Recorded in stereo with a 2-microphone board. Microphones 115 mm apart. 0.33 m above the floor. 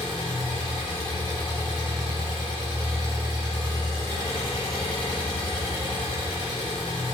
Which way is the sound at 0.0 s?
45° left (ahead or behind).